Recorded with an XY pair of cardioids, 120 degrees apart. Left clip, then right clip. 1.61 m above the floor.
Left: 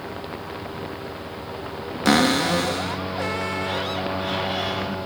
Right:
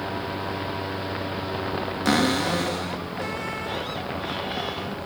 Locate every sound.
2.0 s a cupboard door: 25° left, 2.5 m